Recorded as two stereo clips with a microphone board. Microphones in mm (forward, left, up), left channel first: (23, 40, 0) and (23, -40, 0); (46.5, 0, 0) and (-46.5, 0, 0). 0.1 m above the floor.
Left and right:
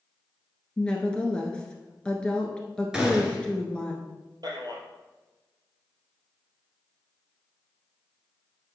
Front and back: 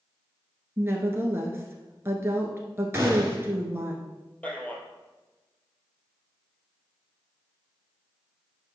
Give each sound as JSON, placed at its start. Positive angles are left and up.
{"t": 0.8, "sound": "a woman speaking", "azimuth_deg": 150, "distance_m": 1.3}
{"t": 2.9, "sound": "a gunshot", "azimuth_deg": -160, "distance_m": 1.7}
{"t": 4.4, "sound": "a man speaking", "azimuth_deg": -75, "distance_m": 2.0}